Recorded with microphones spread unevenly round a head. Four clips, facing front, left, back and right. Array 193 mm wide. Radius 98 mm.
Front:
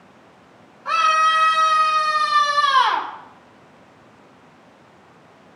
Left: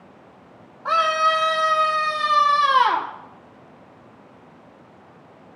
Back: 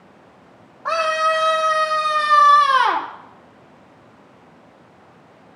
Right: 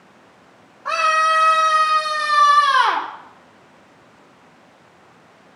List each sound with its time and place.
0.8 s a scream: 170° left, 2 m; by 3.1 s 165° right, 2.5 m